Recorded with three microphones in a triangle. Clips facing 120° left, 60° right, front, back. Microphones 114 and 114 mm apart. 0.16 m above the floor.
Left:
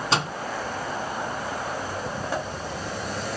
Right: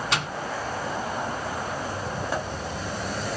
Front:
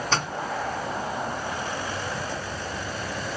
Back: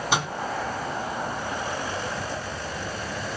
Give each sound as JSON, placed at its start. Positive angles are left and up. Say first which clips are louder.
{"t": 0.1, "sound": "a microwave", "louder": "left 5 dB, back 2 dB", "azimuth_deg": 115, "distance_m": 1.1}